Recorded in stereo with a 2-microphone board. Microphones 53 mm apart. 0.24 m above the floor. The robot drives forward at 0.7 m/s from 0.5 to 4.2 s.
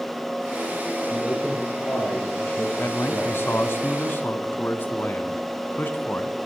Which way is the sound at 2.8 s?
50° left (ahead or behind).